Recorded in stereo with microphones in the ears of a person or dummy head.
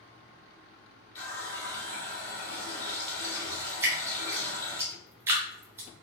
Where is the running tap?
15° left (ahead or behind), 0.8 m.